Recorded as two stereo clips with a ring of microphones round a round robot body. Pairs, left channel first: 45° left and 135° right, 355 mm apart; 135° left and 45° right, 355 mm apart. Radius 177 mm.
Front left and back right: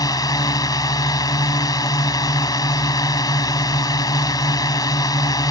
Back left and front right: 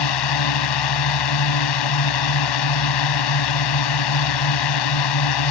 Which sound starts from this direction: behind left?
A drone, at 0.0 s.